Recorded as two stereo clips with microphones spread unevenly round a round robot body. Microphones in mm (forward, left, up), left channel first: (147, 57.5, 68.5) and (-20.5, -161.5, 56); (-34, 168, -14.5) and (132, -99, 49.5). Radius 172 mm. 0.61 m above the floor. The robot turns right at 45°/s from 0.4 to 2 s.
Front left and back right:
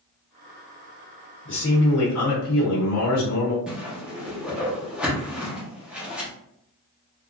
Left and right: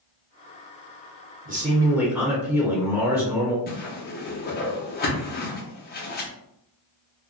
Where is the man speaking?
10° left, 1.0 m; by 3.6 s 35° left, 1.0 m.